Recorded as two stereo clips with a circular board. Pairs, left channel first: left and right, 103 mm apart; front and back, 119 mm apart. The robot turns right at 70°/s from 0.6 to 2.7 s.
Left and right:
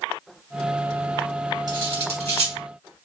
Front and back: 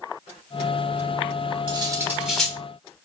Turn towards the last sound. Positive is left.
turn(degrees=-65)